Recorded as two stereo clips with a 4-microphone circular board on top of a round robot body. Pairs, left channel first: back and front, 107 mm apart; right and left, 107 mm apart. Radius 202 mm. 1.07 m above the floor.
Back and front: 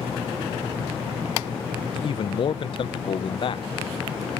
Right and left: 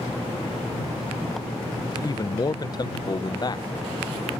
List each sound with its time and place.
1.9 s a man speaking: 140° right